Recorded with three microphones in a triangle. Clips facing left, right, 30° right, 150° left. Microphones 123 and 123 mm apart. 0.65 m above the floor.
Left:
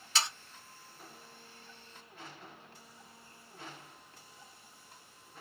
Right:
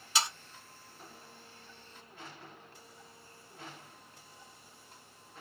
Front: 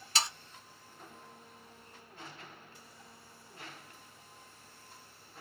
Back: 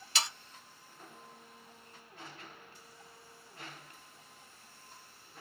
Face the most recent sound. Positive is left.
turn(degrees=-15)